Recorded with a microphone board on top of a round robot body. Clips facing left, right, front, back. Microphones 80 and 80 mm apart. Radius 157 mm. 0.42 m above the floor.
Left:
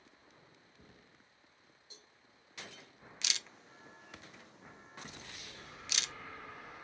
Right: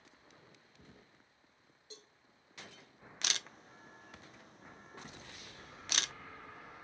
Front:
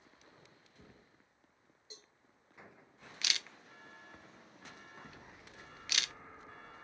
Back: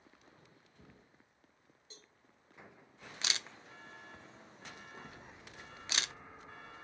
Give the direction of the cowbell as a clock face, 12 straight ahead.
3 o'clock.